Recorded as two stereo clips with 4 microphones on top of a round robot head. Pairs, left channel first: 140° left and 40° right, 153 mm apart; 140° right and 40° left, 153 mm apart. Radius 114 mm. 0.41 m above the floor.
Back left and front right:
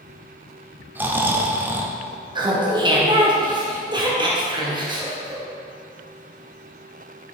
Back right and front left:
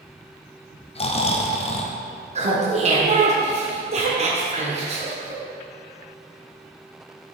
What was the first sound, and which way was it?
Snoring, 110° right.